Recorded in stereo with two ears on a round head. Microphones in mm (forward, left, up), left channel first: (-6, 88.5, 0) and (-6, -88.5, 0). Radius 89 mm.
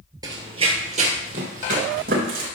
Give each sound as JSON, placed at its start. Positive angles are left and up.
{"t": 0.2, "sound": "running footsteps", "side_deg": -20, "distance_m": 1.8}